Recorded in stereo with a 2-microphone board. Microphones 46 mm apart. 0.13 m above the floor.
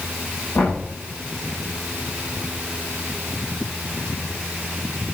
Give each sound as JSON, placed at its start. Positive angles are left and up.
{"t": 0.6, "sound": "knocking", "side_deg": 75, "distance_m": 9.0}